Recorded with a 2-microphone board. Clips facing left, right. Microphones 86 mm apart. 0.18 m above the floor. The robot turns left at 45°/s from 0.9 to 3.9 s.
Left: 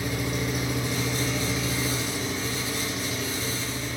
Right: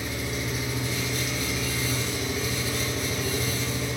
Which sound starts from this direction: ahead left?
An engine running, at 0.0 s.